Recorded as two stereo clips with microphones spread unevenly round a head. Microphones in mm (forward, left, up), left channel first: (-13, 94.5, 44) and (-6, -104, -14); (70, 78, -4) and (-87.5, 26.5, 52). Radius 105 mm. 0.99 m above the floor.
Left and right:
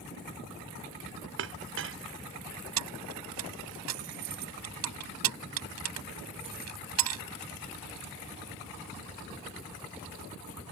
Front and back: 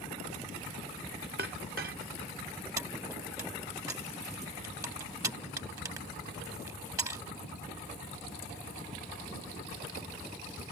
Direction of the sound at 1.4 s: 115° right.